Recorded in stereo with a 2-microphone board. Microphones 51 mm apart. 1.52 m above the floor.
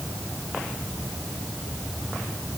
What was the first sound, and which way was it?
Only background noise.